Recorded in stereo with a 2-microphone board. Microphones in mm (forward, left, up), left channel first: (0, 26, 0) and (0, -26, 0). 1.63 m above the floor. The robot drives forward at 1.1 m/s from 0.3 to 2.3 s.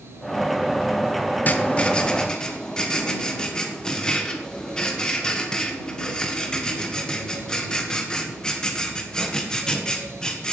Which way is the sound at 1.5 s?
35° left (ahead or behind).